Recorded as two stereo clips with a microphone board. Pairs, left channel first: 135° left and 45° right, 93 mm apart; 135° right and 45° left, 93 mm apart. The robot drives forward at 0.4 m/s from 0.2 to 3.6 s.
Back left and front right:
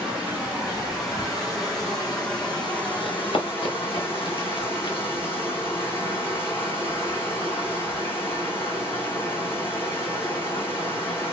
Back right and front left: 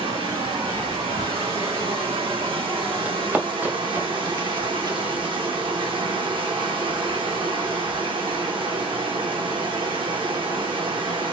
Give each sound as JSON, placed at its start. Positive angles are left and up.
{"t": 0.0, "sound": "running water", "azimuth_deg": 40, "distance_m": 2.5}
{"t": 3.0, "sound": "running footsteps", "azimuth_deg": 120, "distance_m": 1.5}